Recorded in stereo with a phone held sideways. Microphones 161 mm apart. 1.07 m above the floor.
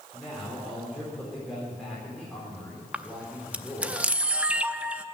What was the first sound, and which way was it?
A man speaking, centre (ahead or behind).